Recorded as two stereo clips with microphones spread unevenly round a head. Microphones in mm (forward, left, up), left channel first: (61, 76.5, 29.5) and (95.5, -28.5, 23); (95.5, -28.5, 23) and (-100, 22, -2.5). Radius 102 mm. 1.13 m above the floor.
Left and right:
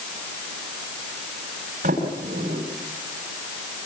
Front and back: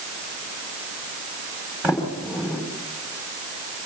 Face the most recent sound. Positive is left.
turn(degrees=-110)